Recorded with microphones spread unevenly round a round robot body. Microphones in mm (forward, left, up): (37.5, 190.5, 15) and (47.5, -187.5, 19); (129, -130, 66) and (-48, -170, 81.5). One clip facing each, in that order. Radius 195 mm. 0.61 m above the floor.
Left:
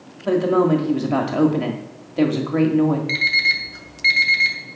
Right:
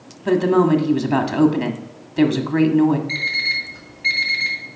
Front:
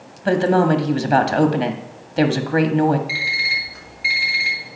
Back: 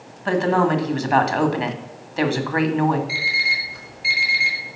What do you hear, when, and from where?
0.2 s a woman speaking: 20° right, 1.5 m
3.1 s an alarm clock: 55° left, 1.9 m